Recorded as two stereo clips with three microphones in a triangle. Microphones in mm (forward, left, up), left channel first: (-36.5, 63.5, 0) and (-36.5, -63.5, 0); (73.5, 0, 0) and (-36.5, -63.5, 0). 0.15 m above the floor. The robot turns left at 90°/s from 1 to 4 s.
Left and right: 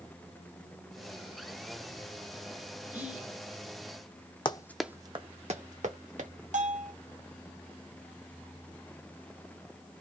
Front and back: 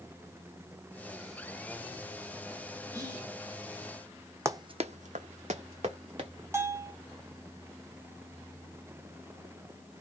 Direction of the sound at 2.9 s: 145° right.